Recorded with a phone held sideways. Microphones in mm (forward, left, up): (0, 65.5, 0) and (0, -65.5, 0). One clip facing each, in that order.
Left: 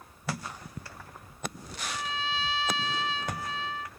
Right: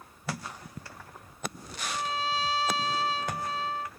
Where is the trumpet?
40° right (ahead or behind).